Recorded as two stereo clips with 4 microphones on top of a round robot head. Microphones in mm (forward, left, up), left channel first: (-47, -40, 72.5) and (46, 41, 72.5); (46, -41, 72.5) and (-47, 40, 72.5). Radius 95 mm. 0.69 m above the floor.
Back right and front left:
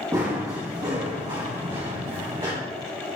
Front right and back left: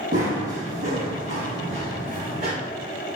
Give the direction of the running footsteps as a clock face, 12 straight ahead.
8 o'clock.